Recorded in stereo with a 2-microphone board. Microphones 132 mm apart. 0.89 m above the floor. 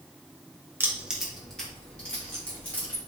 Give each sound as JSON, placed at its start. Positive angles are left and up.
{"t": 0.8, "sound": "keys jangling", "side_deg": -20, "distance_m": 0.7}